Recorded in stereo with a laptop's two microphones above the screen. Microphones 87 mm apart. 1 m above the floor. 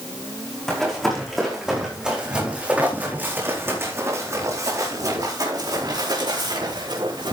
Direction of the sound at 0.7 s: 5° left (ahead or behind).